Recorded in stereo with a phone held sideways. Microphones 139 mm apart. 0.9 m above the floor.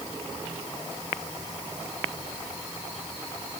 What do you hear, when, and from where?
Only background noise.